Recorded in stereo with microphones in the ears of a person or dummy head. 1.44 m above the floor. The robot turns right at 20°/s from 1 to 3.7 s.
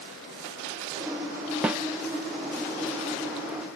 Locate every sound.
1.6 s a snare drum: 5° right (ahead or behind), 0.7 m; by 1.8 s 10° right (ahead or behind), 0.7 m